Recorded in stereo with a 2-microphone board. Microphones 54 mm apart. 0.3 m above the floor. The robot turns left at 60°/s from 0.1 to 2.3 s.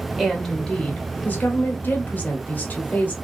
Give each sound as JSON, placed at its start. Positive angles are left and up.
{"t": 0.2, "sound": "a woman speaking", "azimuth_deg": -165, "distance_m": 1.3}